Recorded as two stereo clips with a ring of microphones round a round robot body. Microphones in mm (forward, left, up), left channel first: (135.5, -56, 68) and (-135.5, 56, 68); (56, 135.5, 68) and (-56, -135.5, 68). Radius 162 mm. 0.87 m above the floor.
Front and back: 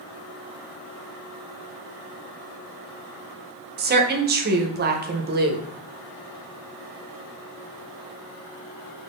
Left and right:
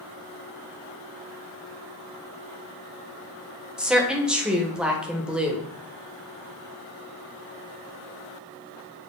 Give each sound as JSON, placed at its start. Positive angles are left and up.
{"t": 3.8, "sound": "a woman speaking", "azimuth_deg": 165, "distance_m": 0.6}